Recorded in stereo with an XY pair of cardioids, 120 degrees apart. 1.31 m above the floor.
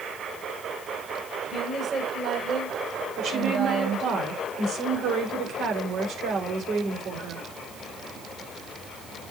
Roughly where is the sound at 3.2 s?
Ahead right.